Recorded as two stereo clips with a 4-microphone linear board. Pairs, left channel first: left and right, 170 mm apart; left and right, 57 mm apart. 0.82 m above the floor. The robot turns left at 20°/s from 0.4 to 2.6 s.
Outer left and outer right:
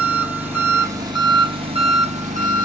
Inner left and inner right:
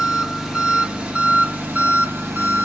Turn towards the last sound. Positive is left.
turn(degrees=-55)